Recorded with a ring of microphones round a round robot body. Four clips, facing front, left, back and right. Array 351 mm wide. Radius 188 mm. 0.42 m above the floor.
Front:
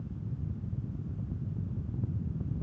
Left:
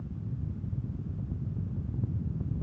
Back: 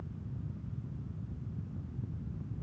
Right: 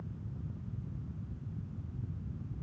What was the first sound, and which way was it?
Only background noise.